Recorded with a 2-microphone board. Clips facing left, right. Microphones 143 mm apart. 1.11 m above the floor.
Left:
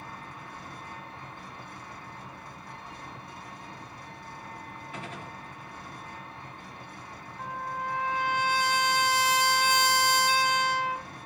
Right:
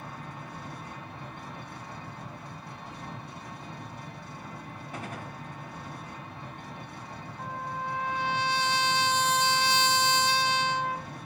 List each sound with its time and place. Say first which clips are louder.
0.0 s an engine running: right 2 dB; 80° right, 2 m
4.9 s a gunshot: right 2 dB; 40° right (ahead or behind), 1.6 m
7.4 s a trumpet: left 1 dB; 10° left (ahead or behind), 0.6 m